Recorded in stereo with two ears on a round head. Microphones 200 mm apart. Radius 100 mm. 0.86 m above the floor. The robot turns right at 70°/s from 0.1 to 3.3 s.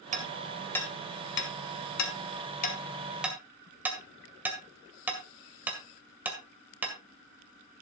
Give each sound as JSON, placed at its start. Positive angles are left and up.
{"t": 0.1, "sound": "hammering", "side_deg": -35, "distance_m": 2.0}